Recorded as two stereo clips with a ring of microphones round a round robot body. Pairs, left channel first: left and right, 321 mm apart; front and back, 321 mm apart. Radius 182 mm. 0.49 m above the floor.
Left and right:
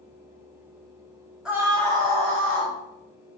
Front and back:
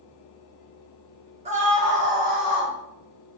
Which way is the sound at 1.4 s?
175° right.